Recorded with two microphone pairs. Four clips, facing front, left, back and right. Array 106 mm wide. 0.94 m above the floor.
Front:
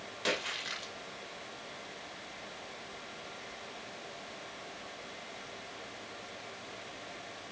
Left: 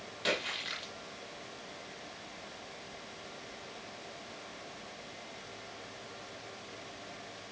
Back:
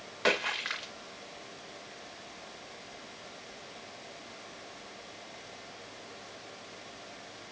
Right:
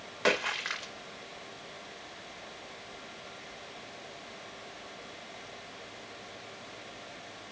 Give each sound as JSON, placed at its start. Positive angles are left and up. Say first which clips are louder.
{"t": 0.2, "sound": "a splash", "louder": "right 6 dB, back 6 dB", "azimuth_deg": -130, "distance_m": 2.5}